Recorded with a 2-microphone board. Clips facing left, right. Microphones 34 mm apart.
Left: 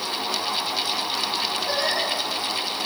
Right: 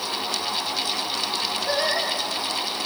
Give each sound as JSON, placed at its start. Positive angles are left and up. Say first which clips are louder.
{"t": 1.7, "sound": "singing", "louder": "right 2 dB", "side_deg": -15, "distance_m": 6.0}